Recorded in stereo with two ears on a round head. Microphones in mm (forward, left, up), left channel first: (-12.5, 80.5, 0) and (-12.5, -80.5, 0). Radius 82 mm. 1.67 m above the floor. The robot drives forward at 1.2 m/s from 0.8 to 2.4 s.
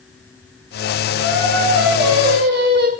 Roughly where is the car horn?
No car horn in this recording.